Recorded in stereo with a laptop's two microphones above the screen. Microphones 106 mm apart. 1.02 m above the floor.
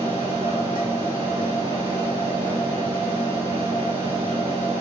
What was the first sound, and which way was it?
A machine running, 50° right (ahead or behind).